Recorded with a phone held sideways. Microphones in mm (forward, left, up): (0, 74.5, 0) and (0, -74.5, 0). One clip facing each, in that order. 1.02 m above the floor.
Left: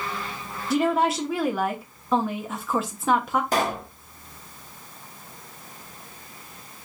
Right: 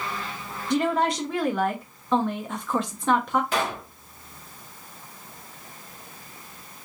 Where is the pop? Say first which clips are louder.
Left 3 dB; 40° left (ahead or behind), 0.9 m.